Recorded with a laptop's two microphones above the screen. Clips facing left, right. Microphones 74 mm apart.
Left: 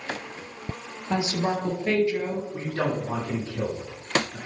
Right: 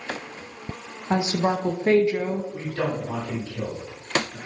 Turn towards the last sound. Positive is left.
turn(degrees=25)  # may be behind; listen again after turning